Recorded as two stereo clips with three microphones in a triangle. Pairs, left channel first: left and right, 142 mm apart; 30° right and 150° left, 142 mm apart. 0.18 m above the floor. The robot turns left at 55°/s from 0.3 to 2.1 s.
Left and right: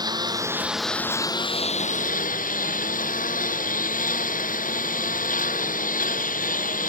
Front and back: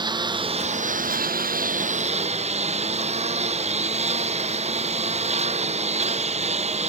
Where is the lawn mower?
150° right; by 6.9 s 110° left.